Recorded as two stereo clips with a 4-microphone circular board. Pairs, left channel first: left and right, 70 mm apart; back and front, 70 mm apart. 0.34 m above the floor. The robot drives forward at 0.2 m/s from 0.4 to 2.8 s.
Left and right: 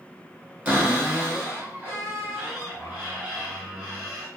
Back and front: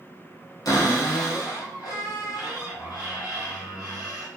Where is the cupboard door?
160° right, 1.3 m; by 4.3 s 165° right, 1.7 m.